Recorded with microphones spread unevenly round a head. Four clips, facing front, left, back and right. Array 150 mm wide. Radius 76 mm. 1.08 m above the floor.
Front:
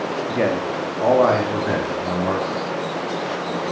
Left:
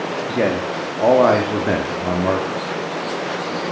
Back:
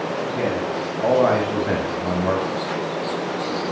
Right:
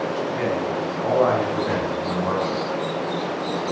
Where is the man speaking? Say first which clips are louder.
Left 3 dB, front 4 dB; 60° left, 2.5 m; by 2.6 s 105° left, 3.5 m.